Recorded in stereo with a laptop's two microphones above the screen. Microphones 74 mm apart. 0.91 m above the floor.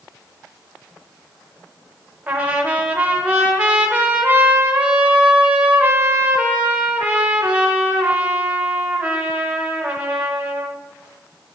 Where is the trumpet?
20° right (ahead or behind), 0.8 m.